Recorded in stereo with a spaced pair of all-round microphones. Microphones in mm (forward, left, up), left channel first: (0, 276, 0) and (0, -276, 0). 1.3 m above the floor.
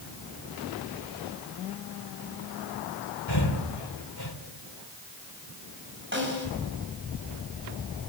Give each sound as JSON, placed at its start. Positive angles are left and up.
{"t": 3.3, "sound": "breathing", "side_deg": 45, "distance_m": 2.5}
{"t": 6.1, "sound": "a snare drum", "side_deg": -20, "distance_m": 6.0}